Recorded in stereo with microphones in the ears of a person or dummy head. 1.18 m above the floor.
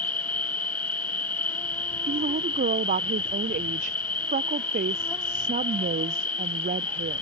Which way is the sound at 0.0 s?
10° left (ahead or behind).